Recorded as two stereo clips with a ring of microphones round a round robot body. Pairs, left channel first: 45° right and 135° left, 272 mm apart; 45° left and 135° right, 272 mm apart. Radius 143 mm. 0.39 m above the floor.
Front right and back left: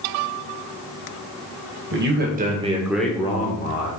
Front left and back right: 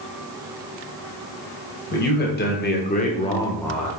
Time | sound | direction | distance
1.9 | a man speaking | 95° left | 2 m